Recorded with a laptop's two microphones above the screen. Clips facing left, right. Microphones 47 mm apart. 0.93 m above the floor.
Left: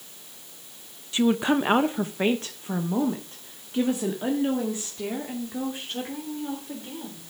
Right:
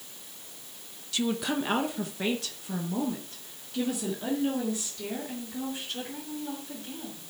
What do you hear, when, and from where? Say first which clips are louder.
1.1 s a woman speaking: left 7 dB; 25° left (ahead or behind), 0.6 m; by 7.3 s 30° left (ahead or behind), 3.5 m